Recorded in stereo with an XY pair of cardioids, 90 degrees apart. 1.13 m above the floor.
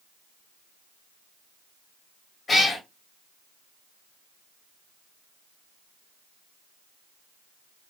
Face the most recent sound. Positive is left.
turn(degrees=40)